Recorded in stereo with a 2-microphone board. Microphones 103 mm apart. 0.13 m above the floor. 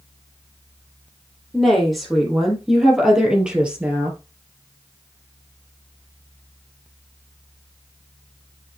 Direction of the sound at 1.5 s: Centre (ahead or behind).